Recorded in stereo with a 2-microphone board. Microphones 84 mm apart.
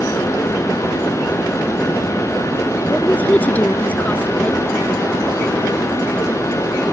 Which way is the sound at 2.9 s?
20° left (ahead or behind).